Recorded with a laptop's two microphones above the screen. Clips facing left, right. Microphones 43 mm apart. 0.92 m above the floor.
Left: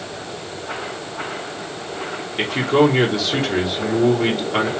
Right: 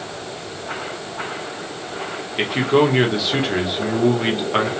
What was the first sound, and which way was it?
A man speaking, 15° right (ahead or behind).